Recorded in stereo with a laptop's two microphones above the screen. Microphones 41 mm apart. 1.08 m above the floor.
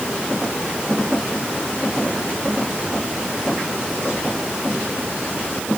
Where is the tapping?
No tapping in this recording.